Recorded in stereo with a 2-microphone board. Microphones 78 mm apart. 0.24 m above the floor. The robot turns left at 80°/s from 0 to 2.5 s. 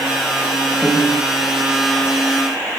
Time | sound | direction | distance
0.8 | a piano | 5° right (ahead or behind) | 1.7 m